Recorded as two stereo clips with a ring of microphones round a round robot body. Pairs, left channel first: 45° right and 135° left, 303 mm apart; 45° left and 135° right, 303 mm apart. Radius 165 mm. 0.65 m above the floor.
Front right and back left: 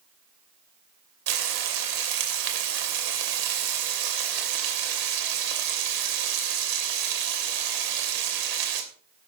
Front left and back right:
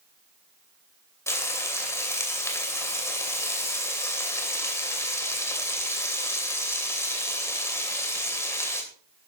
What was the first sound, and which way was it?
Frying, 125° left.